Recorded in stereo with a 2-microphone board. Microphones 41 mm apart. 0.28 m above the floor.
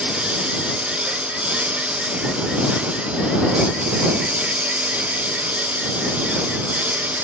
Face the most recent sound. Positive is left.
turn(degrees=-40)  # may be behind; listen again after turning